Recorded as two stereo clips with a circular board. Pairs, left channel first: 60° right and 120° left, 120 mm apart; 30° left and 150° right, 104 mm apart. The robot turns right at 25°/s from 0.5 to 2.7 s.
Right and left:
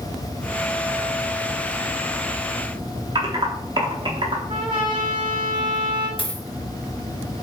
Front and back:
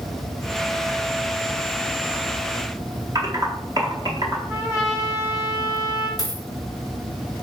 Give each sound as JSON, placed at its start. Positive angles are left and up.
{"t": 3.1, "sound": "typing on a keyboard", "azimuth_deg": 165, "distance_m": 0.8}
{"t": 4.5, "sound": "a trumpet", "azimuth_deg": 150, "distance_m": 1.0}
{"t": 6.2, "sound": "a dropped coin", "azimuth_deg": -20, "distance_m": 1.0}